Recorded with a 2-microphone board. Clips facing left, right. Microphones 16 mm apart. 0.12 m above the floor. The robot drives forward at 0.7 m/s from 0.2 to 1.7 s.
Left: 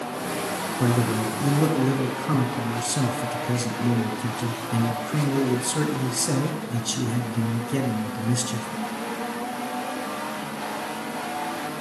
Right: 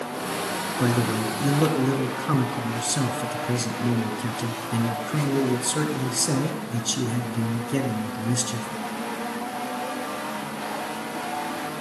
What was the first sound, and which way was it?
A man speaking, 25° right (ahead or behind).